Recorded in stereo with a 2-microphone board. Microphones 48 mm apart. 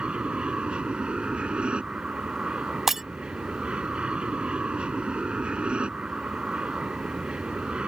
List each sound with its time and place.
0.0 s an aircraft: 20° right (ahead or behind)
2.9 s breaking glass: 5° right (ahead or behind)